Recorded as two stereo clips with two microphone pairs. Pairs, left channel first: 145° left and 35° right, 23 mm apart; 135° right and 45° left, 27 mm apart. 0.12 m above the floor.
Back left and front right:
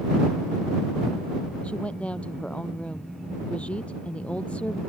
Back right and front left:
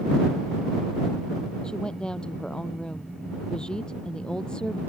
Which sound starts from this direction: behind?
A woman speaking, at 1.6 s.